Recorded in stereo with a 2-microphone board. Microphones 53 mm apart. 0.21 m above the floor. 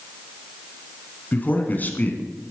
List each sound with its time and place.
1.3 s a man speaking: 35° left (ahead or behind), 2 m